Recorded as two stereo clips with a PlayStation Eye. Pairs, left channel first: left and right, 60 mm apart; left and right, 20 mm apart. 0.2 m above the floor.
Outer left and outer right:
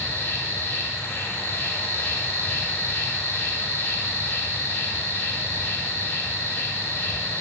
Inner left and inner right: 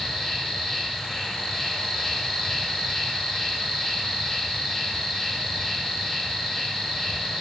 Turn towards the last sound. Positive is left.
turn(degrees=40)  # may be behind; listen again after turning